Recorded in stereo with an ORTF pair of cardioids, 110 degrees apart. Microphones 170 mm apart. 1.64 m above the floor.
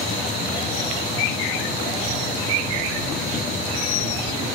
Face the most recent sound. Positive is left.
turn(degrees=60)